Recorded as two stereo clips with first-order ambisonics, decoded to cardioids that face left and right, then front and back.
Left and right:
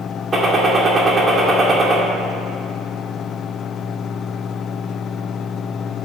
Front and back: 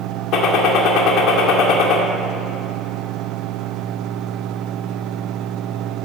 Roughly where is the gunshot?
Ahead.